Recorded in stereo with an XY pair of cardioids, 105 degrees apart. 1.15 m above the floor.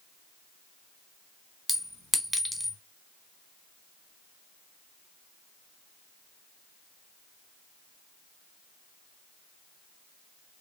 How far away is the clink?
About 0.8 m.